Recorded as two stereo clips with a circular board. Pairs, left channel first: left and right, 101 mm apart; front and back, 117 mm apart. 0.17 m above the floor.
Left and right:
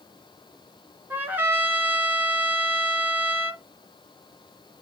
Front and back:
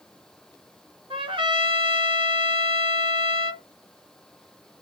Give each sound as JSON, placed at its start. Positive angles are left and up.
{"t": 1.1, "sound": "a trumpet", "azimuth_deg": -155, "distance_m": 1.7}